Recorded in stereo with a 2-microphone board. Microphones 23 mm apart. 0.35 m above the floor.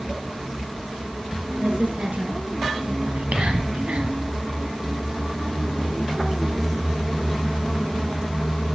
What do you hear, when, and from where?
1.6 s a woman speaking: 75° right (ahead or behind), 5.5 m
3.1 s whispering: 65° right (ahead or behind), 2.5 m